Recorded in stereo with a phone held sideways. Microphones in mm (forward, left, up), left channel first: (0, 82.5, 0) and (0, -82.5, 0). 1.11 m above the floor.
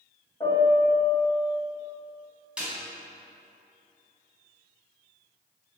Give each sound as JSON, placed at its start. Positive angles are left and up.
{"t": 0.4, "sound": "a piano", "side_deg": 25, "distance_m": 1.4}
{"t": 2.6, "sound": "a snare drum", "side_deg": -5, "distance_m": 1.2}